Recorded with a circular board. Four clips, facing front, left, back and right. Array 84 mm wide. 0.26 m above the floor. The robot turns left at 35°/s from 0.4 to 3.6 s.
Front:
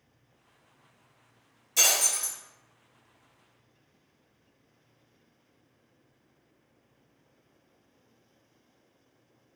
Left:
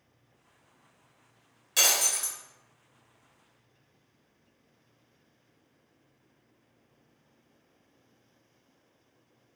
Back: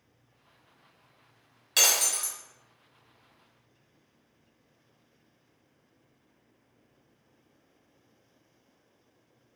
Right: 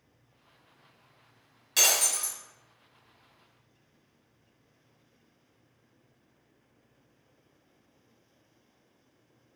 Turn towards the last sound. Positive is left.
turn(degrees=120)